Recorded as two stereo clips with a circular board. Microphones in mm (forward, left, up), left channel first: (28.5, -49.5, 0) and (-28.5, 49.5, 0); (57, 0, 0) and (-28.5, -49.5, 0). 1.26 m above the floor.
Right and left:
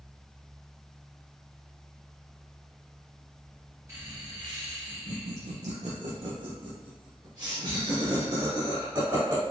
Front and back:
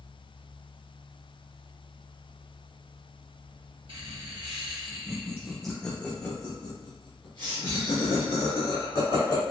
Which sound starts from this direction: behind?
Laughter, at 3.9 s.